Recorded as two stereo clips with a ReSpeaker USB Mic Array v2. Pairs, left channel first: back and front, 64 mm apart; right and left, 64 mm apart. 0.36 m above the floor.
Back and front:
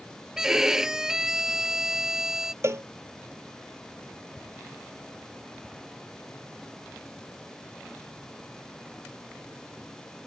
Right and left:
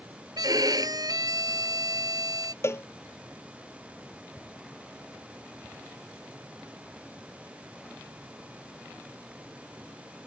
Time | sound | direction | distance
0.4 | a violin | 85° left | ?
2.6 | a cowbell | 45° right | ?